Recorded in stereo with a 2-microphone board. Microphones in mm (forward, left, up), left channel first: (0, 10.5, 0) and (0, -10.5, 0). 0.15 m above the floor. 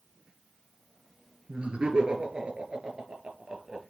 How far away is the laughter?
About 2.5 m.